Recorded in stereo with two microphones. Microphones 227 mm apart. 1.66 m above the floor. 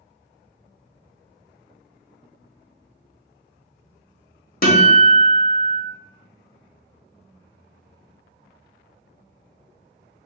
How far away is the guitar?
About 0.9 m.